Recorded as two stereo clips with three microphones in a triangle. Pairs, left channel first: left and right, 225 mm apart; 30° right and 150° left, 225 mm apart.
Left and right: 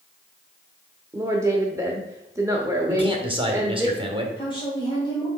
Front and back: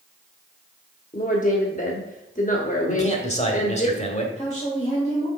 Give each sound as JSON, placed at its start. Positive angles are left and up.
{"t": 1.1, "sound": "a woman speaking", "azimuth_deg": -25, "distance_m": 0.8}
{"t": 2.9, "sound": "a man speaking", "azimuth_deg": -45, "distance_m": 1.4}
{"t": 4.4, "sound": "a woman speaking", "azimuth_deg": 25, "distance_m": 1.9}